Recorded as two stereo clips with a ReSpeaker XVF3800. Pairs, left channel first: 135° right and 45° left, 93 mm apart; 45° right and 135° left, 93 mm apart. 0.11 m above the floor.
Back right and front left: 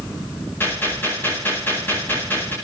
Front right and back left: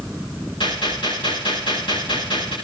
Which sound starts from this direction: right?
A gunshot, at 0.6 s.